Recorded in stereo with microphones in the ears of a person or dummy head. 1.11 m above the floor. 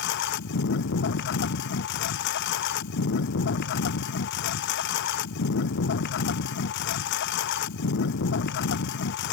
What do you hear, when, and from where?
0.0 s a lawn mower: 60° left (ahead or behind)